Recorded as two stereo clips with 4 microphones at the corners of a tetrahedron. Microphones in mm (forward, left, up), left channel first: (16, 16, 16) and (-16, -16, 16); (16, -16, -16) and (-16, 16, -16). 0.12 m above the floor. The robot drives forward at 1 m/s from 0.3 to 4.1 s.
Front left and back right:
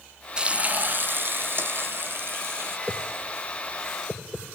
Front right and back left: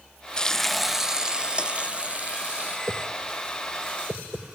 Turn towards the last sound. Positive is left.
turn(degrees=150)